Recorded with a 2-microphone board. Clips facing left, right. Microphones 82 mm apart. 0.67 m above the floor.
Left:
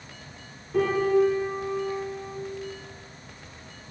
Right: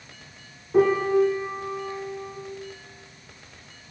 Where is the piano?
25° right (ahead or behind), 6.5 m.